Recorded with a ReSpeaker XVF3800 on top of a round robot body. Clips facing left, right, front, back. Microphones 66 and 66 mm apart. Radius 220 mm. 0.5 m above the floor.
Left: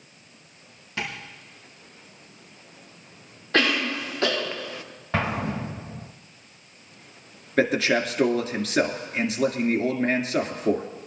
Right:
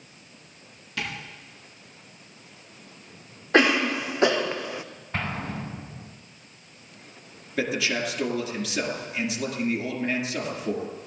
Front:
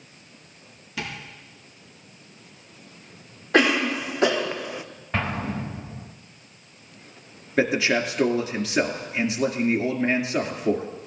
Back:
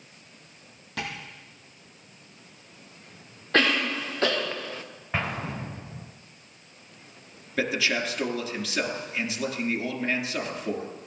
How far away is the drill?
No drill in this recording.